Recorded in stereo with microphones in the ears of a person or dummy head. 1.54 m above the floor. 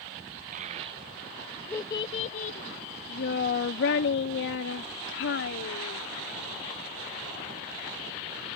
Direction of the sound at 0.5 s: 45° right (ahead or behind).